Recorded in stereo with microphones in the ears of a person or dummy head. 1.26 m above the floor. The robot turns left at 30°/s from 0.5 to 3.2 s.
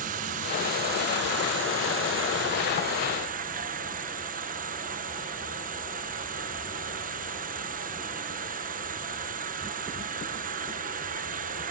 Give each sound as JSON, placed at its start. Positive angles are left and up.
{"t": 0.0, "sound": "an insect", "azimuth_deg": -50}